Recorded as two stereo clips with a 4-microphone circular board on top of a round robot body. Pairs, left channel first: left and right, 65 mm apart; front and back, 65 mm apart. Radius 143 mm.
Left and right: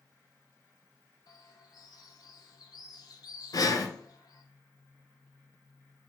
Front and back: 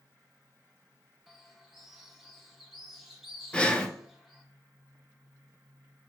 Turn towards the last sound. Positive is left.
turn(degrees=75)